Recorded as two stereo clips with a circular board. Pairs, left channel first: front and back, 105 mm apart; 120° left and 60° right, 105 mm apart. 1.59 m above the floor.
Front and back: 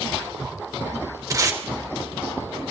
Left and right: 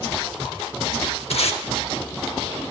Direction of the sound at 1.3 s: 125° left.